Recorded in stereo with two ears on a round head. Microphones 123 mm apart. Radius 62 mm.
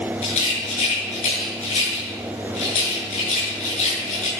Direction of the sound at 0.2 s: 55° left (ahead or behind).